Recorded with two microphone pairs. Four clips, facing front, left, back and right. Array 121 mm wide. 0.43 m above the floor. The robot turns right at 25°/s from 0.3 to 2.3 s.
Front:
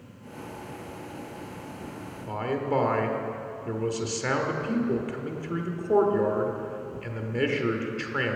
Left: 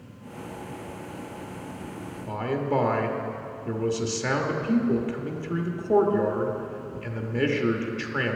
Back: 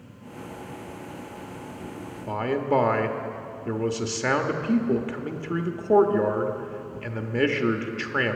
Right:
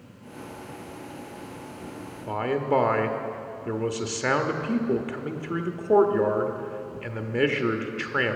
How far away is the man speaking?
About 0.9 m.